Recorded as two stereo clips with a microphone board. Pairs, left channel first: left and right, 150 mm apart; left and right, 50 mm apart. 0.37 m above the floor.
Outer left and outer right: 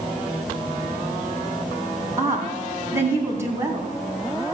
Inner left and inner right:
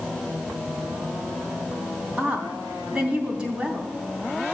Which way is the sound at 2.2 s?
20° right (ahead or behind).